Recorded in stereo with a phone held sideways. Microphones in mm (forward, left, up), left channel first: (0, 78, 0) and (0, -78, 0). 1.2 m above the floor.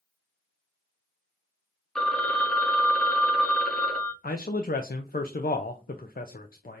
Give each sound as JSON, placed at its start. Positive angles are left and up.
{"t": 1.9, "sound": "a phone ringing", "side_deg": 5, "distance_m": 0.8}
{"t": 4.2, "sound": "a man speaking", "side_deg": 70, "distance_m": 0.5}